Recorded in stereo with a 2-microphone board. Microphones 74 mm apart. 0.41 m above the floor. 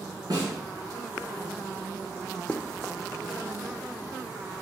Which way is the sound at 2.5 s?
15° left (ahead or behind).